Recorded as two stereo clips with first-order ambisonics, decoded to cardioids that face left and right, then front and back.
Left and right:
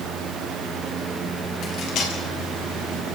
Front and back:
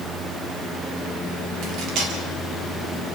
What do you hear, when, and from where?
1.6 s cutlery clinking: 140° left, 5 m